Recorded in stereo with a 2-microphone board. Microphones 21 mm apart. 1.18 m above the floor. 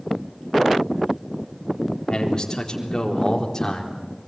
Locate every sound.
2.1 s a man speaking: 40° left (ahead or behind), 4 m; by 4.0 s 30° left (ahead or behind), 4.5 m